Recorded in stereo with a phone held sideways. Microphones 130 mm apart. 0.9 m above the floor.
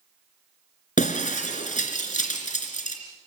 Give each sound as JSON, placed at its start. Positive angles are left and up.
{"t": 1.0, "sound": "breaking glass", "side_deg": 80, "distance_m": 3.0}